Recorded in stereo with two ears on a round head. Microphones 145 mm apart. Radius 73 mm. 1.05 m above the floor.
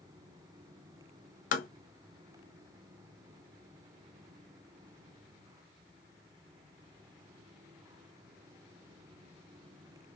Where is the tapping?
50° left (ahead or behind), 0.7 m.